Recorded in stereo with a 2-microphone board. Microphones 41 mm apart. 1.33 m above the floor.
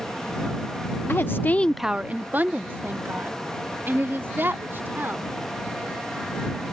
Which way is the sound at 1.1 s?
65° left (ahead or behind).